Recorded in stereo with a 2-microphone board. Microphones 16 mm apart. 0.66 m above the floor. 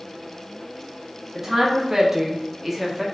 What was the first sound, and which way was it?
A woman speaking, 15° right (ahead or behind).